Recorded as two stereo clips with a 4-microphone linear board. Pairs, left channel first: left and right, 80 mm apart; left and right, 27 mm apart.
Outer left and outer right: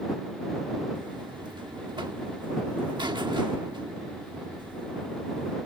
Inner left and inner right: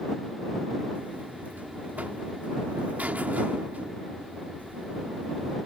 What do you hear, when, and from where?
0.9 s a buzzer: 70° right (ahead or behind)